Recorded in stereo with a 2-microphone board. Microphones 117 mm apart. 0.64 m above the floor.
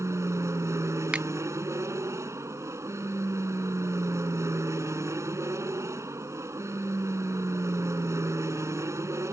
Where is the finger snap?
10° right (ahead or behind).